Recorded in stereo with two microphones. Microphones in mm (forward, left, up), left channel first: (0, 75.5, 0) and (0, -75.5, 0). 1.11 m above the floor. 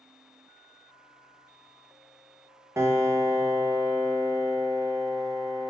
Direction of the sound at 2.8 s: 20° right (ahead or behind).